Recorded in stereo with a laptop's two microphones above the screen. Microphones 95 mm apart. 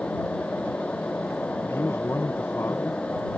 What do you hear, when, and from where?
0.0 s a fan: 15° left (ahead or behind)
1.6 s a man speaking: 25° left (ahead or behind)